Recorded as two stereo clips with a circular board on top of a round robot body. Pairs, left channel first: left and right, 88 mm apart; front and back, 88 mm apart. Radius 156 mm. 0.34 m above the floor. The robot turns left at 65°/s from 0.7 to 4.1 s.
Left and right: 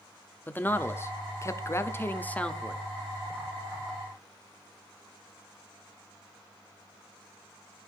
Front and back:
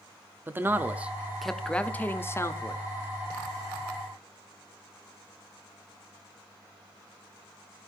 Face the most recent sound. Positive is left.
turn(degrees=-85)